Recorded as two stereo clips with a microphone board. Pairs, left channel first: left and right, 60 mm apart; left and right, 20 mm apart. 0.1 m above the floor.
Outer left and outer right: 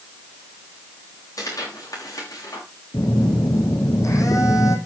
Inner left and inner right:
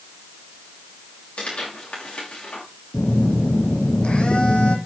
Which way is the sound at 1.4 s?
80° left.